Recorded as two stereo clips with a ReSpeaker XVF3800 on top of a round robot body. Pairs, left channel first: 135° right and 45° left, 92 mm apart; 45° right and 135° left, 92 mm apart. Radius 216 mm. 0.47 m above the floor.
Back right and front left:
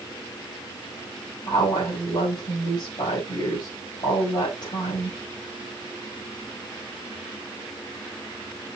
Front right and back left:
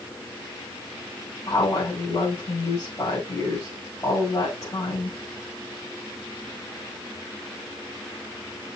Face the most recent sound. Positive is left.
turn(degrees=-105)